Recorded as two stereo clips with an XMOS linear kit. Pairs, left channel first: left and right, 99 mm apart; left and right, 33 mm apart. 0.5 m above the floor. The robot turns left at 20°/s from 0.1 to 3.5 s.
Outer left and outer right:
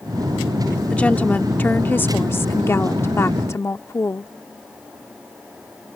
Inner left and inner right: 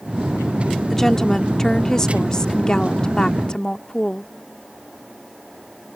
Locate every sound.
0.9 s a woman speaking: 15° left (ahead or behind); by 4.3 s 30° left (ahead or behind)